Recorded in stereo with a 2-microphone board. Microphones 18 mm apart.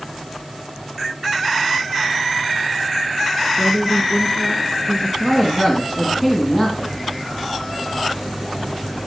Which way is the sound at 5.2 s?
5° left (ahead or behind).